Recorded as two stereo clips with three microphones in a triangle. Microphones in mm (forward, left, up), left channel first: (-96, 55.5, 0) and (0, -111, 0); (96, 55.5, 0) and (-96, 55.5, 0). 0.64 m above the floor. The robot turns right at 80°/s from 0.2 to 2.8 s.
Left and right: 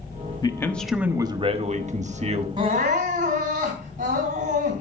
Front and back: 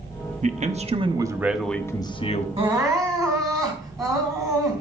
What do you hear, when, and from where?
0.4 s a man speaking: 175° left, 1.1 m; by 2.5 s 20° right, 1.1 m
2.6 s crying: 125° right, 3.5 m; by 4.8 s 110° right, 3.5 m